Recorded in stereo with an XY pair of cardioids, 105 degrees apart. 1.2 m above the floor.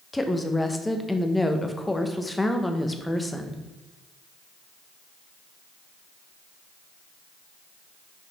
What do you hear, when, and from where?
0.1 s a woman speaking: 10° left, 0.9 m